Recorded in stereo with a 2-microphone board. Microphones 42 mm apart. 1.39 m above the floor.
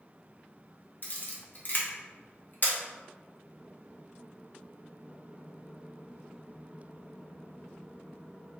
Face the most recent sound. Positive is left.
turn(degrees=50)  # may be behind; listen again after turning